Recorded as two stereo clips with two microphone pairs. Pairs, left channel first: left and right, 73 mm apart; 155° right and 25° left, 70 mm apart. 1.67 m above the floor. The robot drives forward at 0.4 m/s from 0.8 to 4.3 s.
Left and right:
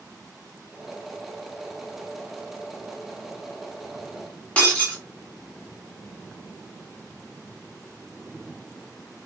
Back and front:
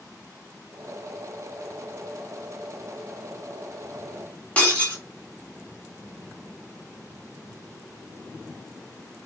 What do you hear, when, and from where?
4.6 s breaking glass: 145° left, 1.3 m